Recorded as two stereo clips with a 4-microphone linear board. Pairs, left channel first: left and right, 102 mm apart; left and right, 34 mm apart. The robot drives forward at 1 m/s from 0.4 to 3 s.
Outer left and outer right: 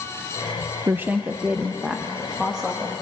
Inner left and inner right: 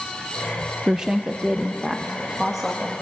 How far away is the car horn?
I don't hear a car horn.